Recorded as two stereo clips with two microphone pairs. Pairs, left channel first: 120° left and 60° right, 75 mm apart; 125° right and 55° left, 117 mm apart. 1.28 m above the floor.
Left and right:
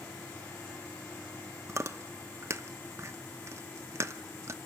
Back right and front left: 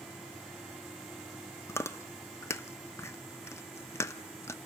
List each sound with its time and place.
1.7 s chewing: 80° right, 0.8 m